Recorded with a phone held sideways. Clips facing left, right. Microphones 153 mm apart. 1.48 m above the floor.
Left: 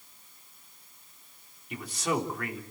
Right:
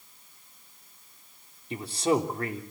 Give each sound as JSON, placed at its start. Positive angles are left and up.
{"t": 1.7, "sound": "a man speaking", "side_deg": -30, "distance_m": 3.5}